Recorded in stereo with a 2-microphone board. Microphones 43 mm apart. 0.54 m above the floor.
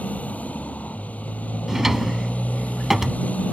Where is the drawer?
10° right (ahead or behind).